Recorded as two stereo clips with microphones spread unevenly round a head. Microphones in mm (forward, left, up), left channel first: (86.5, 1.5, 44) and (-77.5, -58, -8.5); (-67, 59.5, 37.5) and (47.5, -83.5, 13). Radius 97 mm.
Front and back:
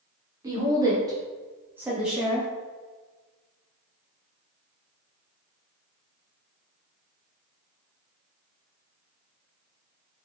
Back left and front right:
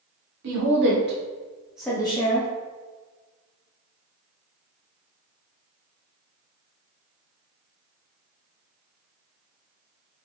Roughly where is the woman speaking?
Right.